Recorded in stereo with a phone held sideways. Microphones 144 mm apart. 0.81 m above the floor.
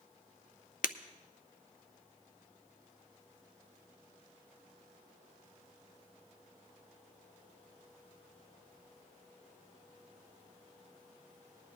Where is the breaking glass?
70° left (ahead or behind), 0.5 m.